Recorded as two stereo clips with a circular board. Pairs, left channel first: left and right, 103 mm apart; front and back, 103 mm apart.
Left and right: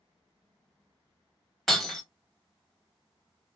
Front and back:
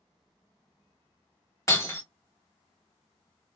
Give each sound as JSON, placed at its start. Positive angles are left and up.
{"t": 1.7, "sound": "breaking glass", "azimuth_deg": 5, "distance_m": 1.4}